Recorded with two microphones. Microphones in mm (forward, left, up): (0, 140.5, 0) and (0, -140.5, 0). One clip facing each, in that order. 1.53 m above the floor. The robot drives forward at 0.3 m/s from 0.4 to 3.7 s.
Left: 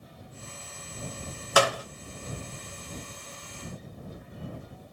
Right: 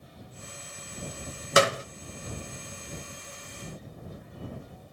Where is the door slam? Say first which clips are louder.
Right 1 dB; 25° right (ahead or behind), 0.9 m.